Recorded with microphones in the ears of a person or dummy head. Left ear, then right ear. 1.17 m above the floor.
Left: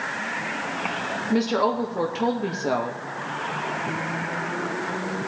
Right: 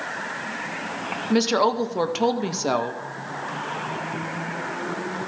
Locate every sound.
1.3 s a woman speaking: 25° right (ahead or behind), 0.6 m